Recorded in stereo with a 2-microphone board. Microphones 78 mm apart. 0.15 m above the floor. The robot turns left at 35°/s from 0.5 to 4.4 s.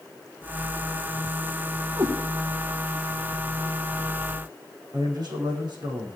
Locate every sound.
2.0 s a cat meowing: 45° right (ahead or behind), 4 m; by 2.1 s 50° right (ahead or behind), 4 m
4.9 s a man speaking: 65° right (ahead or behind), 7 m